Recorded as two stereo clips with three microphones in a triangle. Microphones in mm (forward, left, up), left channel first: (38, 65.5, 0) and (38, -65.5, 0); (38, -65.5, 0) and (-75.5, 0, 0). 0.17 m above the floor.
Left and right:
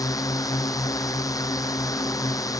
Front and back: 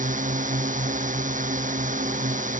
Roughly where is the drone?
Behind left.